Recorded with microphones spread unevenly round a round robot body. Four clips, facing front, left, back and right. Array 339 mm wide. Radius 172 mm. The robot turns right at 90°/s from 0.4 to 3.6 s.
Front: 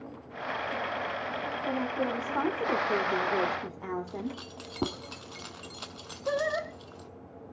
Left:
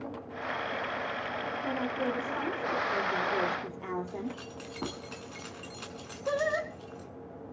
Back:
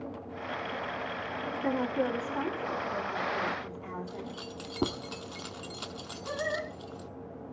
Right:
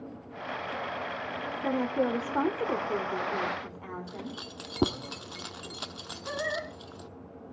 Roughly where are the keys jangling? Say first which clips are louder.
Left 2 dB, front 3 dB; right.